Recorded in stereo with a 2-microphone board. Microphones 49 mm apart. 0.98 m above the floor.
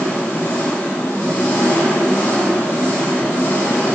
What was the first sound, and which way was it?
An engine running, 85° left.